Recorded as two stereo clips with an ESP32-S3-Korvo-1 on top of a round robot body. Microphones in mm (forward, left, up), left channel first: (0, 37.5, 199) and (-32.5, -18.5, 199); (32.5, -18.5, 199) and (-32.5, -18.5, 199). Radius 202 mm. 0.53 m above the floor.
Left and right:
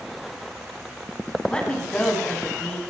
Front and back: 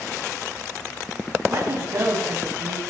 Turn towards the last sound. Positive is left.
turn(degrees=135)